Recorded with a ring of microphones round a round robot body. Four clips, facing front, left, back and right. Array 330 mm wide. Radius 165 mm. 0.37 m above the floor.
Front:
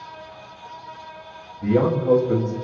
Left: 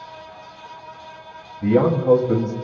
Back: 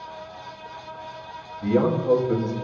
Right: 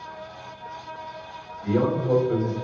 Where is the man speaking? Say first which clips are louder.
Left 6 dB, front 2 dB; 85° left, 2.5 m.